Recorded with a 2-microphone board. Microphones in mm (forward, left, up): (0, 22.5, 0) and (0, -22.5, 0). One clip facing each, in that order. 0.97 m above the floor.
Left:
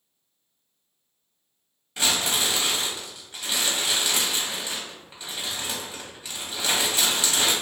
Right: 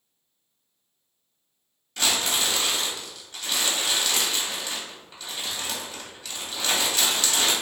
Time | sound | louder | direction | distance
2.0 | crumpling | even | 20° left (ahead or behind) | 1.1 m